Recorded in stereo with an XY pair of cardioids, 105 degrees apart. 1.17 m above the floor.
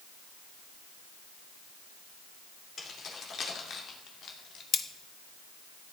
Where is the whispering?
No whispering in this recording.